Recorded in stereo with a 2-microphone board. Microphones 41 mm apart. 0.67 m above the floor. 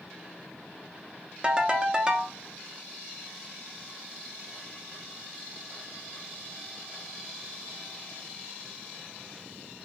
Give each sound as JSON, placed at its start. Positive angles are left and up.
{"t": 1.4, "sound": "a ringtone", "side_deg": -20, "distance_m": 0.6}